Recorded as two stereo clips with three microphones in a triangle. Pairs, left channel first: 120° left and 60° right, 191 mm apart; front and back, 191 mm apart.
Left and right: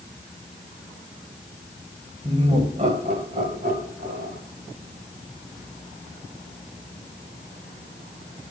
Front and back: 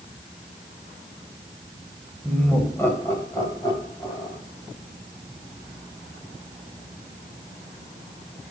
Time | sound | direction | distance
2.2 | laughter | 80° right | 1.7 m